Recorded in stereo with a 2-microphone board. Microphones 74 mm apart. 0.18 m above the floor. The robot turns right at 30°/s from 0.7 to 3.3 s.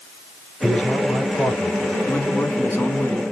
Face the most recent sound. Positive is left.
turn(degrees=25)  # may be behind; listen again after turning